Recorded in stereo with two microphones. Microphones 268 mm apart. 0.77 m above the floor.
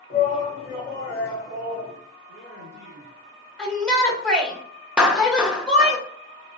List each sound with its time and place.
0.1 s a shout: 35° left (ahead or behind), 1.4 m; by 1.9 s 10° right (ahead or behind), 1.6 m
2.3 s a man speaking: 25° left (ahead or behind), 1.1 m
3.6 s a shout: centre (ahead or behind), 1.1 m
5.0 s a clap: 5° right (ahead or behind), 0.6 m